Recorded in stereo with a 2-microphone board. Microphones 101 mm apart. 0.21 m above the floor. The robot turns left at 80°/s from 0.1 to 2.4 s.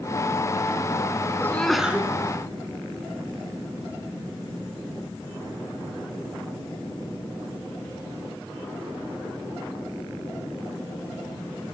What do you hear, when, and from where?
1.4 s a sneeze: 25° left, 2.5 m; by 2.1 s 30° right, 2.5 m